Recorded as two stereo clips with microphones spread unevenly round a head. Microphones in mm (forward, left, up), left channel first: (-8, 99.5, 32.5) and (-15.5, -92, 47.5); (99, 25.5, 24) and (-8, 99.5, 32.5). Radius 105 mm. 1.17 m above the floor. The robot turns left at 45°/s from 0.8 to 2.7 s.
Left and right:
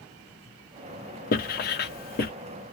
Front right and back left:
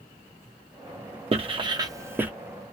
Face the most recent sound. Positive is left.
turn(degrees=50)